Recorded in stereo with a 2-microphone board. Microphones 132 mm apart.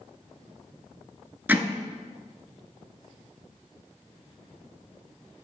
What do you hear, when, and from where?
1.5 s hammering: 15° right (ahead or behind), 0.7 m